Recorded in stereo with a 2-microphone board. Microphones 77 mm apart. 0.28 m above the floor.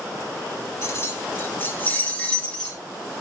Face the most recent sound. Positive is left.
turn(degrees=15)  # may be behind; listen again after turning